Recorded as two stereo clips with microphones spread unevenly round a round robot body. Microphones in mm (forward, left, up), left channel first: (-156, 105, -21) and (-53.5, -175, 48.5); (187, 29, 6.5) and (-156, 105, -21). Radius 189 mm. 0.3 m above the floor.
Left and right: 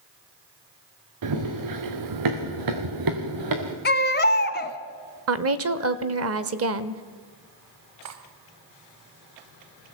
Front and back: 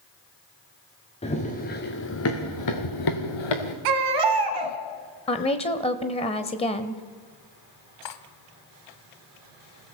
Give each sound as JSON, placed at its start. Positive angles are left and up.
{"t": 1.2, "sound": "running footsteps", "azimuth_deg": -90, "distance_m": 3.0}
{"t": 3.9, "sound": "a baby crying", "azimuth_deg": 165, "distance_m": 1.4}
{"t": 5.3, "sound": "a woman speaking", "azimuth_deg": -80, "distance_m": 0.9}
{"t": 8.0, "sound": "cutlery clinking", "azimuth_deg": -25, "distance_m": 1.3}